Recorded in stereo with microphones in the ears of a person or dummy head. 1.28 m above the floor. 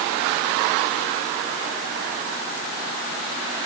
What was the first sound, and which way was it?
Only background noise.